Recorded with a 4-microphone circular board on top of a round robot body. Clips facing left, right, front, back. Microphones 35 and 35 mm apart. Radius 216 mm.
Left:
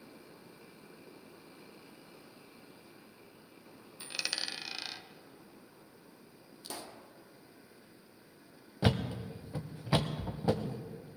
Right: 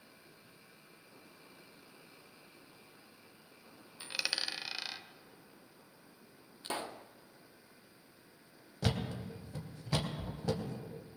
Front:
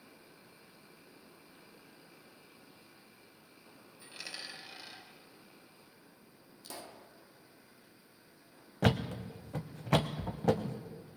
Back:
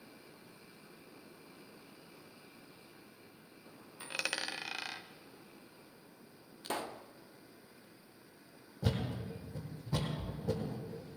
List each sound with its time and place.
4.0 s a dropped coin: 170° right, 1.0 m
6.6 s a pop: 145° right, 0.8 m
8.8 s a thud: 20° left, 0.8 m